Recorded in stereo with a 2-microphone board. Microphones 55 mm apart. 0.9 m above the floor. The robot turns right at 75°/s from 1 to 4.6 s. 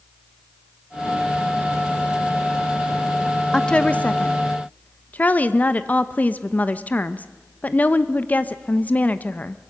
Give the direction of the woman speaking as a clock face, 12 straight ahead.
11 o'clock.